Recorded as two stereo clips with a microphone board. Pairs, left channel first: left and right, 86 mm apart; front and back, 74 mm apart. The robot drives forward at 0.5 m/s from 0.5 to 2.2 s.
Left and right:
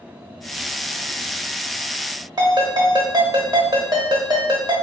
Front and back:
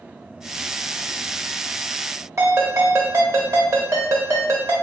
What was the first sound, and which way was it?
A ringtone, 130° right.